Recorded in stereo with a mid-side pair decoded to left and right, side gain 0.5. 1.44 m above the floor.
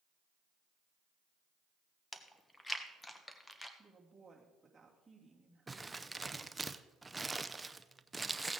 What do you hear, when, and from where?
2.1 s chewing: 15° left, 1.2 m
3.8 s a woman speaking: 15° right, 2.5 m
5.7 s crumpling: 15° right, 0.6 m